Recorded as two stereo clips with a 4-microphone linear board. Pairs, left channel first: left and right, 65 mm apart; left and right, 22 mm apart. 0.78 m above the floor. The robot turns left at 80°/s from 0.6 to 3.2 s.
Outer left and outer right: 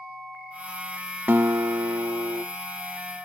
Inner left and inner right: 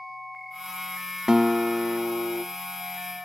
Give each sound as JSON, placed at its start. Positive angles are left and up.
{"t": 1.3, "sound": "a guitar", "azimuth_deg": -30, "distance_m": 0.6}